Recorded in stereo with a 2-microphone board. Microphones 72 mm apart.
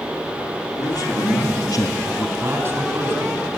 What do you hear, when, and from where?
0.8 s a man speaking: 75° left (ahead or behind), 2.5 m; by 2.3 s 65° left (ahead or behind), 1.3 m
2.4 s a man speaking: 40° right (ahead or behind), 7.5 m